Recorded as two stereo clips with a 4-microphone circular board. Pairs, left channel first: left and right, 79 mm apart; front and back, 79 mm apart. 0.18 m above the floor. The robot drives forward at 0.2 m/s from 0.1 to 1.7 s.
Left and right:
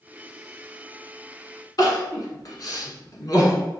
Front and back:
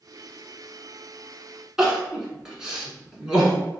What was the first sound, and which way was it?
Crying, 100° left.